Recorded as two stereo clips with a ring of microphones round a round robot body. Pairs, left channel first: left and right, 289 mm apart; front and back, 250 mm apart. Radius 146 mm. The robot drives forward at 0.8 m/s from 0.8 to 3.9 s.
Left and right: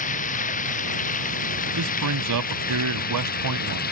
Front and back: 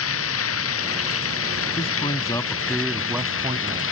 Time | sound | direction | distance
0.0 | running water | 25° left | ?
1.8 | a man speaking | 65° right | ?